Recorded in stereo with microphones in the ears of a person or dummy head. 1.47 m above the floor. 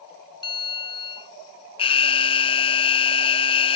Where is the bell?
25° left (ahead or behind).